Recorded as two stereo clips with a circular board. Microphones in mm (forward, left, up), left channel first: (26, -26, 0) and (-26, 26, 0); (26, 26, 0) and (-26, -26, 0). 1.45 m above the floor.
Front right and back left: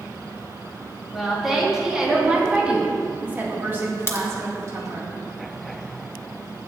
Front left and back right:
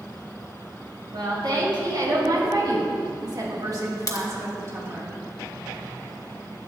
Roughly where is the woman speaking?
Behind right.